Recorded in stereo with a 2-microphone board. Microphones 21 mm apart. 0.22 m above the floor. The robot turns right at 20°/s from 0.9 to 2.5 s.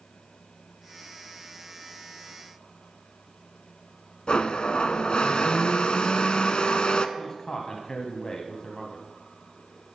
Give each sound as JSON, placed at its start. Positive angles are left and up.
{"t": 4.3, "sound": "a blender", "side_deg": 55, "distance_m": 0.7}
{"t": 7.2, "sound": "a man speaking", "side_deg": 35, "distance_m": 1.2}